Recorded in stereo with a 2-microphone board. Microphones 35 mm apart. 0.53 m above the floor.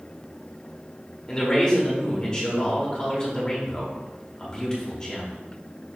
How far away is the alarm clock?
No alarm clock in this recording.